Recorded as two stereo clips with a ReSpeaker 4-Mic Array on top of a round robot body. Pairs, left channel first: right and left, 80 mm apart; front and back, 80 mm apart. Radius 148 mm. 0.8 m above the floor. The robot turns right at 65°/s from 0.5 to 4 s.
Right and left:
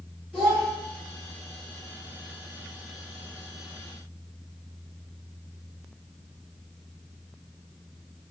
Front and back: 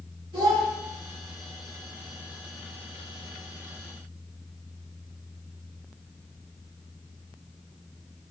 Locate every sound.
0.3 s a child speaking: 170° left, 1.1 m; by 0.7 s straight behind, 1.1 m